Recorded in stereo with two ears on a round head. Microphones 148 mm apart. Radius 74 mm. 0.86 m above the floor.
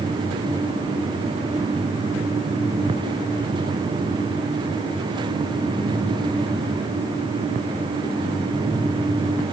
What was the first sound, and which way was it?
Only background noise.